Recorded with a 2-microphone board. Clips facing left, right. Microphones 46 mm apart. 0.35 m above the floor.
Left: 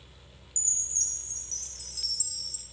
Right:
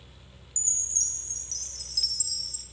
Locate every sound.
0.6 s a chime: 35° left (ahead or behind), 2.5 m